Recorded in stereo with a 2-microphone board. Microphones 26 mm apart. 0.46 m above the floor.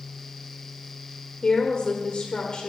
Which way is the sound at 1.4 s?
50° left (ahead or behind).